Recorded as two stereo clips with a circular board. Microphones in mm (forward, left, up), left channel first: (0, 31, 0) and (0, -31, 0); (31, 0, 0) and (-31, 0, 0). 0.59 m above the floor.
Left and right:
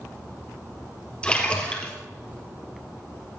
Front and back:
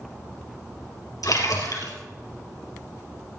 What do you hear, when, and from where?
1.2 s a splash: 20° left, 3.5 m